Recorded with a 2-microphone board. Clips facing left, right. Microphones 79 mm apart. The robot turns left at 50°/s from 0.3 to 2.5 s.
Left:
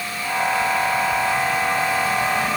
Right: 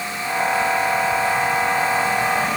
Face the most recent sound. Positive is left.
No sound to turn to.